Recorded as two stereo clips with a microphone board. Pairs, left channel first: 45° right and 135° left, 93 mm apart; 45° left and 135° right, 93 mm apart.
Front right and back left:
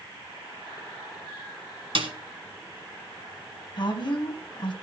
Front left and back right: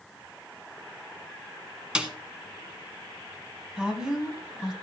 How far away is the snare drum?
About 1.7 m.